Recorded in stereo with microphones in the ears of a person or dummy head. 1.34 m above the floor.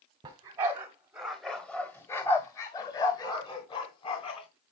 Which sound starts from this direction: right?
A dog barking, at 0.2 s.